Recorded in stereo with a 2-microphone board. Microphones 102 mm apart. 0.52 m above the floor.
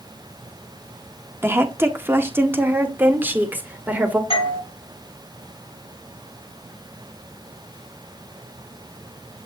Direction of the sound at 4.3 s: 65° left (ahead or behind).